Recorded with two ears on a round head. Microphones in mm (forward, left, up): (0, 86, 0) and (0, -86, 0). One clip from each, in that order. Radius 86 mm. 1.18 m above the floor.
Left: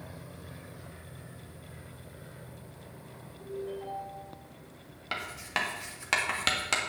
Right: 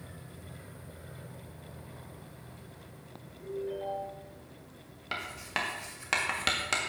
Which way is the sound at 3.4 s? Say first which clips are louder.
Right 2 dB; centre (ahead or behind).